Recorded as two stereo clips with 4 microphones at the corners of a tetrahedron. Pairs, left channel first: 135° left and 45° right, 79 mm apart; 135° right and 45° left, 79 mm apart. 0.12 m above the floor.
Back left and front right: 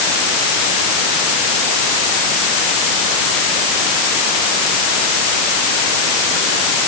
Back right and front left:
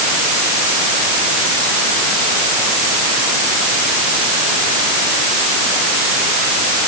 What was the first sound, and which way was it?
Only background noise.